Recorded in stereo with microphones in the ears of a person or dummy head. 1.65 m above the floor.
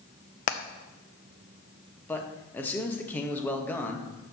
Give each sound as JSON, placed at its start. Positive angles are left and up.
{"t": 0.5, "sound": "hammering", "side_deg": 45, "distance_m": 0.5}
{"t": 2.1, "sound": "a man speaking", "side_deg": 5, "distance_m": 1.1}